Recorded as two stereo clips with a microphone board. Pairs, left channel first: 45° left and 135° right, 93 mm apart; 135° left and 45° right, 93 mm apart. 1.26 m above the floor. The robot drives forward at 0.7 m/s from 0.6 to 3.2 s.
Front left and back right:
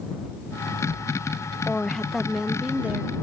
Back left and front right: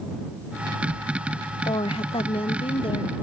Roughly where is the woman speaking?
Behind left.